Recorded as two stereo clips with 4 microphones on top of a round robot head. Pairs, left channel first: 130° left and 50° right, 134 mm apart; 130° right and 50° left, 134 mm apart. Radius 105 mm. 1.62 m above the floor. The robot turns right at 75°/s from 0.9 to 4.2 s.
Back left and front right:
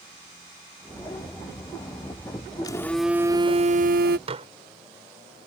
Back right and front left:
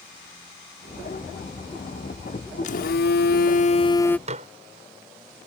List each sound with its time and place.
2.6 s a phone buzzing: 165° right; by 4.2 s 50° right
4.3 s dishes clattering: 5° left